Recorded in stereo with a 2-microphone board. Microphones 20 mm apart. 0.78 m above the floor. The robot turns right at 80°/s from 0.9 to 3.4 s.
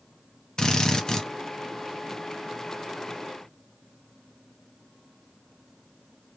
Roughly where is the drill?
Left.